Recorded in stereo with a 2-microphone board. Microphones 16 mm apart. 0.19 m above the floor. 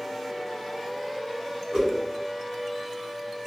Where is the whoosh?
45° right (ahead or behind), 2.0 m.